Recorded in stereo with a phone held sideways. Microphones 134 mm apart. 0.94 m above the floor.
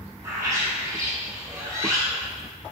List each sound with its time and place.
0.2 s a bird: 25° right (ahead or behind), 1.1 m